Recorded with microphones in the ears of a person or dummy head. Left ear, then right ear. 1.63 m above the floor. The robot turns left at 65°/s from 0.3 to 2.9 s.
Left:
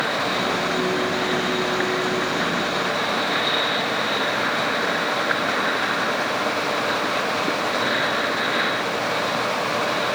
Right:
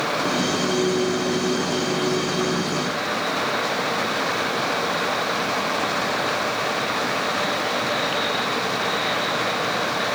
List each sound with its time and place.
Only background noise.